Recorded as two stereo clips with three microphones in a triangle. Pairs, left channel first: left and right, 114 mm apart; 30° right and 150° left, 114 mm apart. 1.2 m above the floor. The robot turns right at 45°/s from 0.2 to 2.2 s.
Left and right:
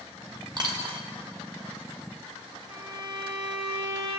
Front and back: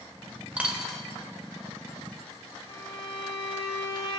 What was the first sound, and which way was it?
A dropped coin, 135° right.